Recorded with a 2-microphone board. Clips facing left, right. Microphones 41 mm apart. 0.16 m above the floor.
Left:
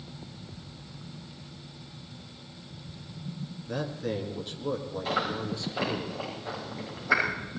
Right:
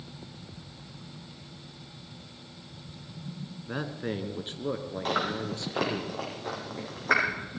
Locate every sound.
3.7 s a man speaking: 25° right (ahead or behind), 1.7 m; by 6.0 s 50° right (ahead or behind), 3 m
5.0 s chewing: 65° right (ahead or behind), 5.5 m